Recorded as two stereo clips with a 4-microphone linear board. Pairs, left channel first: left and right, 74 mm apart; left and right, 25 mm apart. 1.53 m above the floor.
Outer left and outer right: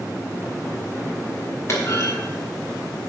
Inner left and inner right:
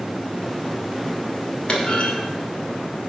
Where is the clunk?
40° left (ahead or behind), 1.9 m.